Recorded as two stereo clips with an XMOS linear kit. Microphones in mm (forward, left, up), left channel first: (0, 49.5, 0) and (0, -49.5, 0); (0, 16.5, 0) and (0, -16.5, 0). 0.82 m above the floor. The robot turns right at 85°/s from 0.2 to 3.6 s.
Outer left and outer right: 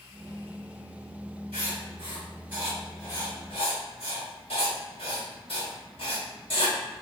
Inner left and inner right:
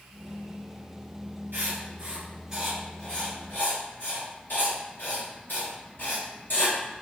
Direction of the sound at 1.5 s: 75° right (ahead or behind).